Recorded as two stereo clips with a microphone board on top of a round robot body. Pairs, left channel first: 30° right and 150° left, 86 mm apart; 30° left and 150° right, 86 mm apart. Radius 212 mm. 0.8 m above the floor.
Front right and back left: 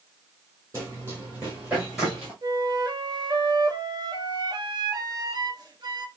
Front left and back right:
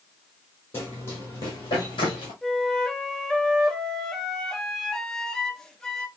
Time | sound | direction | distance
0.7 | running footsteps | 95° left | 1.4 m
2.4 | a flute | 115° left | 1.0 m